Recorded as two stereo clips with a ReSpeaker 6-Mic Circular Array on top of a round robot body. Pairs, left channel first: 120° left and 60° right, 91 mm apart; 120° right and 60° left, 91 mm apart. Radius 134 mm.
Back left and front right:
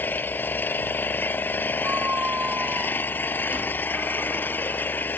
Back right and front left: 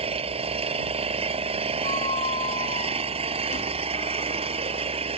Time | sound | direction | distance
0.0 | an engine running | 50° left | ?
1.8 | a squeak | 135° right | ?